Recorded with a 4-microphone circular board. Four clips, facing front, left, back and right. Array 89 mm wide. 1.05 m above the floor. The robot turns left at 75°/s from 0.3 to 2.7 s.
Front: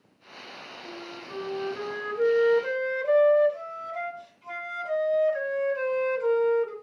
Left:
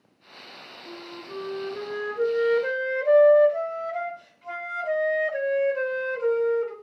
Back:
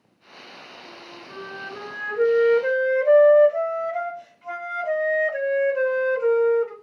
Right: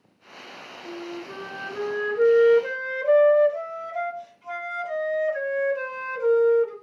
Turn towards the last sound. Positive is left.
turn(degrees=155)